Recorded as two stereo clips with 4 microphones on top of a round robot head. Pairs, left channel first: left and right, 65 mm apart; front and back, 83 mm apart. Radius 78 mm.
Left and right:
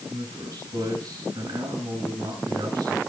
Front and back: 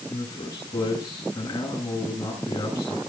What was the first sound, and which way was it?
A man speaking, 55° right.